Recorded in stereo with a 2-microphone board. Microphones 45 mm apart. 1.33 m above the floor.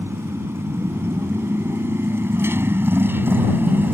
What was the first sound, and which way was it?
A motorcycle, 80° right.